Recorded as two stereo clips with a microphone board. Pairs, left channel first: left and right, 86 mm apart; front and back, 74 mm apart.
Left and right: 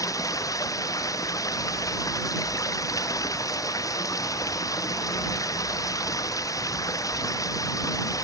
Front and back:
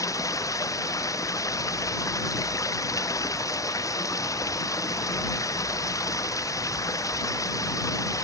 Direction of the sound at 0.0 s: 40° left.